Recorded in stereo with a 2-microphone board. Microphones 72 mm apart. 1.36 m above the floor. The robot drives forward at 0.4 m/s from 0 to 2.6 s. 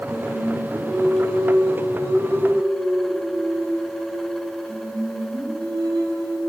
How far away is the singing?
About 3.5 m.